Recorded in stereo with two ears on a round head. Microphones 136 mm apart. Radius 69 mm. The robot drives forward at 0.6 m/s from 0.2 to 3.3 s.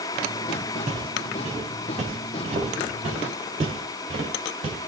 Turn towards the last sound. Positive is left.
turn(degrees=-50)  # may be behind; listen again after turning